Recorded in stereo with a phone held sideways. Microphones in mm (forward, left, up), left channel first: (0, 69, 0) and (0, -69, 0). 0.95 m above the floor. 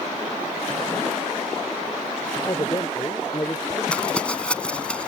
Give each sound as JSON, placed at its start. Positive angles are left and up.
{"t": 2.5, "sound": "a man speaking", "side_deg": 30}
{"t": 3.9, "sound": "crumpling", "side_deg": 10}